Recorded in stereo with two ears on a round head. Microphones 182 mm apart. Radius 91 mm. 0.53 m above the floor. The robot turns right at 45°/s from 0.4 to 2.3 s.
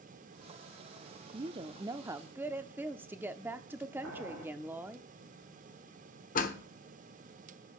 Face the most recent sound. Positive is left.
turn(degrees=40)  # may be behind; listen again after turning